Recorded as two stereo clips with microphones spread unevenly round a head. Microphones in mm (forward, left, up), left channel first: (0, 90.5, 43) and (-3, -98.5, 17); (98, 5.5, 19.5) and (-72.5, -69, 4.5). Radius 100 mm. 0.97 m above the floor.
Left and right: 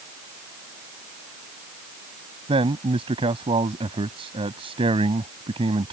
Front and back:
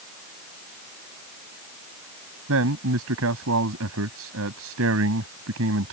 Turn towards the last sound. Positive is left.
turn(degrees=-155)